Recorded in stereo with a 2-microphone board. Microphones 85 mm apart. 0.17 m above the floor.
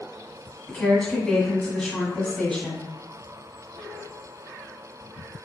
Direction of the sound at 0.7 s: 10° left (ahead or behind).